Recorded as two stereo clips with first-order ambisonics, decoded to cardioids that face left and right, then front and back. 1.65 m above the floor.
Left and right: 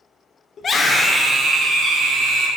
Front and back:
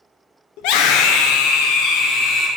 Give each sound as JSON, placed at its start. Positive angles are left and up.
{"t": 0.6, "sound": "a scream", "azimuth_deg": 30, "distance_m": 0.9}